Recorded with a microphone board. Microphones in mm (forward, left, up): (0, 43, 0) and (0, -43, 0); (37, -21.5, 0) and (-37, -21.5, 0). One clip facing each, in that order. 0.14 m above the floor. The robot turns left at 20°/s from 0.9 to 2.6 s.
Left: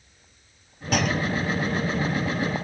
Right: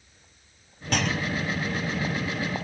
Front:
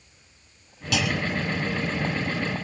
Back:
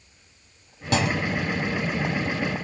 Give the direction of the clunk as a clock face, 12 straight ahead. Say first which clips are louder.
Left 3 dB, back 2 dB; 6 o'clock.